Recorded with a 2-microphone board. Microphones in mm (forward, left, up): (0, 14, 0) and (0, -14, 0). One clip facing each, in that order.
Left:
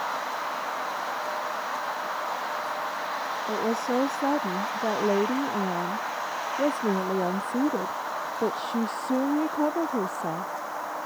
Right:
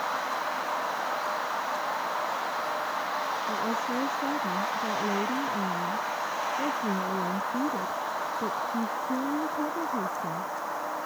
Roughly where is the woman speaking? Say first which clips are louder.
Left 3 dB; left.